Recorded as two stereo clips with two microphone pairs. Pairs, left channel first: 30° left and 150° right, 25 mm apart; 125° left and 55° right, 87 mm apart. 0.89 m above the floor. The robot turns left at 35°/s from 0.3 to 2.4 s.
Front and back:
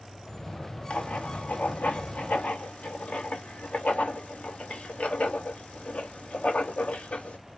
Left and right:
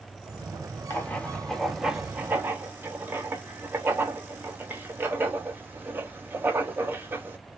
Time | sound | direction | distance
0.9 | writing | 60° left | 0.7 m